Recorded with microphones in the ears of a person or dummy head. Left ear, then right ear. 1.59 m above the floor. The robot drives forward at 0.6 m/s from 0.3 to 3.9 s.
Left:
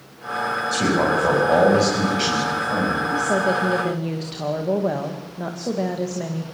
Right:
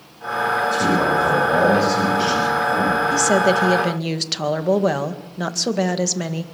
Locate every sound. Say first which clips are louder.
0.7 s a man speaking: right 2 dB; 15° left (ahead or behind), 9 m
3.1 s a woman speaking: right 4 dB; 60° right (ahead or behind), 2 m; by 6.4 s 75° right (ahead or behind), 1.9 m